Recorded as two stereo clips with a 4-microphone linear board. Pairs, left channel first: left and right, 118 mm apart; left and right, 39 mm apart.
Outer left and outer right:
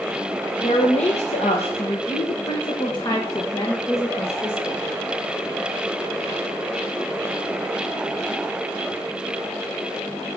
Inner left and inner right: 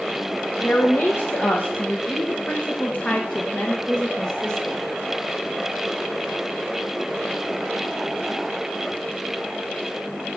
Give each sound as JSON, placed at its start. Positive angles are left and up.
{"t": 0.6, "sound": "a woman speaking", "side_deg": 75, "distance_m": 1.4}